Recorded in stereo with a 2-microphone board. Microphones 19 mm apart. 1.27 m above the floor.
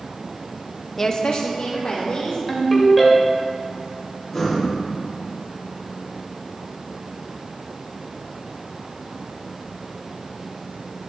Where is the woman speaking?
10° left (ahead or behind), 0.5 m; by 2.4 s 75° left (ahead or behind), 2 m.